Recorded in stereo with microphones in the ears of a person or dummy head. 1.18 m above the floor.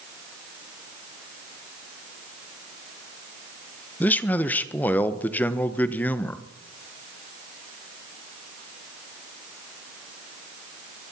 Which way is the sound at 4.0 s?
5° left (ahead or behind).